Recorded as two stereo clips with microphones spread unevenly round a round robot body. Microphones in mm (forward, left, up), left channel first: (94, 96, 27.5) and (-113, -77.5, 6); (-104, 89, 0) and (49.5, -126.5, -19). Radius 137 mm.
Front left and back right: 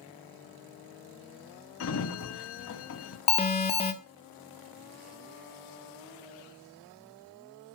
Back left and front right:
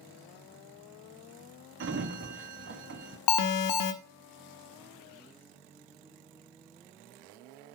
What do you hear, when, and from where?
1.8 s a sliding door: 5° right, 1.4 m
3.3 s an alarm: 110° left, 1.2 m